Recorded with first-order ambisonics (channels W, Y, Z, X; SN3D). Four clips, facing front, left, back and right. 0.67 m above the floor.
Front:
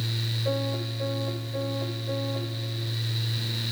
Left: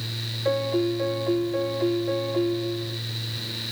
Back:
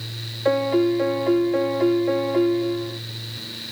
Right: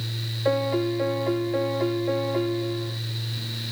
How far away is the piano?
About 0.6 m.